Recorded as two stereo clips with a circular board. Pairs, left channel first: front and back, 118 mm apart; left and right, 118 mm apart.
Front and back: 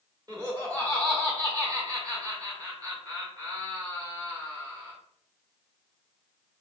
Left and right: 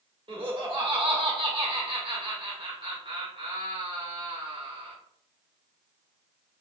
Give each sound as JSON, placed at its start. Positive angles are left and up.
{"t": 0.3, "sound": "laughter", "azimuth_deg": -125, "distance_m": 1.3}